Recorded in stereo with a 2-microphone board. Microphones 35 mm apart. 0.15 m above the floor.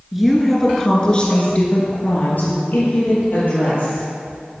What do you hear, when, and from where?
0.1 s a woman speaking: 5° right (ahead or behind), 1.8 m; by 4.6 s 75° left (ahead or behind), 4.5 m